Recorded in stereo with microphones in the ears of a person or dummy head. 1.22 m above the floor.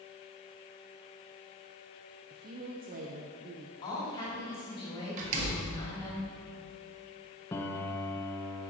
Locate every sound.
2.3 s a woman speaking: 45° right (ahead or behind), 0.7 m
3.8 s a woman speaking: 25° left (ahead or behind), 3.5 m
5.2 s a door slam: 45° right (ahead or behind), 1.6 m
7.5 s a piano: 15° left (ahead or behind), 0.6 m